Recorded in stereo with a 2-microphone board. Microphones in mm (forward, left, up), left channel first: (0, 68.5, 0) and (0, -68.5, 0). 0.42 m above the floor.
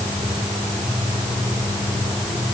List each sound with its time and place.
Only background noise.